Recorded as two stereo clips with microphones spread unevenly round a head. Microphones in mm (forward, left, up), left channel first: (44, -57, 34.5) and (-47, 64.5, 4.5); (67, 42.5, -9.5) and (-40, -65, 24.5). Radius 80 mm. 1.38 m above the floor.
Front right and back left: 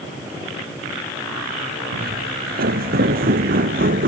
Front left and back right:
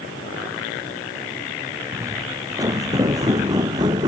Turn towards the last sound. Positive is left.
turn(degrees=165)